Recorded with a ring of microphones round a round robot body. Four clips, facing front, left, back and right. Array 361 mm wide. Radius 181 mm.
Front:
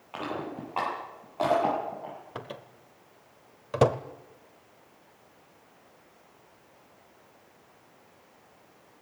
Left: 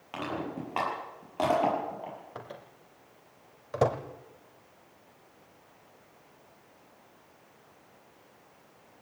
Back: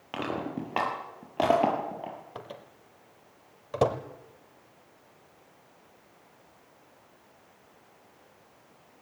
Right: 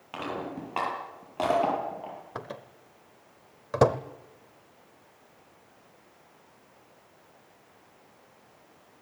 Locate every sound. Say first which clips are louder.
0.1 s crushing: even, back 2 dB; 175° right, 9 m
2.4 s a microwave: right 4 dB, front 2 dB; 60° right, 1.0 m